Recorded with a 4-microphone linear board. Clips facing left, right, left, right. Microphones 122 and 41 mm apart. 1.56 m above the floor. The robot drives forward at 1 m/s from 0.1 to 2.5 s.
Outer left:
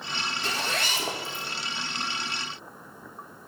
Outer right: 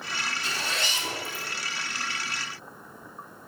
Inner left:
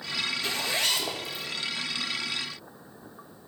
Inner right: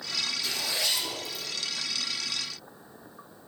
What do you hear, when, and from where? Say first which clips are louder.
0.4 s a zipper: outer left 4 dB, inner left 4 dB; 50° left (ahead or behind), 3.5 m; by 1.4 s 65° left (ahead or behind), 3 m